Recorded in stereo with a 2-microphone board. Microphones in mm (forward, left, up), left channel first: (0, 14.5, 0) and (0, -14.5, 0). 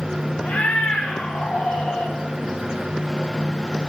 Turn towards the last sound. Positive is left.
turn(degrees=60)  # may be behind; listen again after turning